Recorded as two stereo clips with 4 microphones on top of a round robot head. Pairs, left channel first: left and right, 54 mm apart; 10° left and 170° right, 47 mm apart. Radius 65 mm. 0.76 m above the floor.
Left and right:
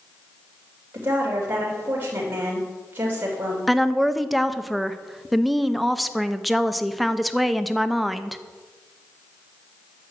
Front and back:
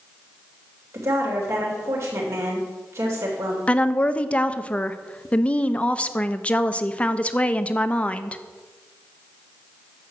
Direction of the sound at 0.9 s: 150° right.